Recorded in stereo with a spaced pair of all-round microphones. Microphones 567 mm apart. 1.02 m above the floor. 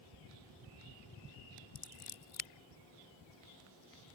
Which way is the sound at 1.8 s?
70° left (ahead or behind).